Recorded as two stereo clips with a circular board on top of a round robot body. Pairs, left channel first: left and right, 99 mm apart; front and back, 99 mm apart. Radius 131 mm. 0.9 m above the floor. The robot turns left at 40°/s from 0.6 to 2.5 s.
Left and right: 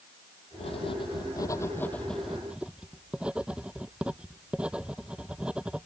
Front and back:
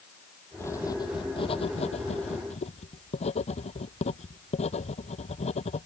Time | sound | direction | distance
0.6 | writing | 65° left | ?